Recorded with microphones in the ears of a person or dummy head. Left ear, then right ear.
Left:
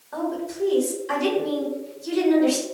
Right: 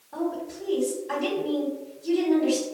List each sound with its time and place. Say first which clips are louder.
0.1 s a woman speaking: left 2 dB; 65° left (ahead or behind), 1.8 m